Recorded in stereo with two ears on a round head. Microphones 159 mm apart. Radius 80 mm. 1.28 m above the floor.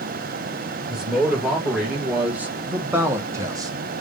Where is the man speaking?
5° right (ahead or behind), 2 m; by 3.7 s 20° right (ahead or behind), 0.8 m.